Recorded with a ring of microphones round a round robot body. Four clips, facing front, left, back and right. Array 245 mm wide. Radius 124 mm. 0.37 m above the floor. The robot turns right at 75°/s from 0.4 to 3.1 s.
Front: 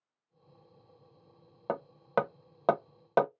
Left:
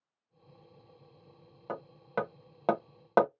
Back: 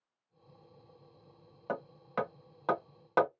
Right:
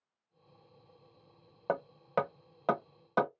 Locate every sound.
1.7 s hammering: 40° right, 0.8 m; by 3.3 s 65° left, 0.8 m